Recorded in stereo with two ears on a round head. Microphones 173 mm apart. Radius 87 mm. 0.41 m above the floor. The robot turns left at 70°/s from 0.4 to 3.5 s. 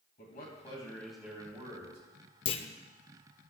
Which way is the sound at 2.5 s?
25° left (ahead or behind).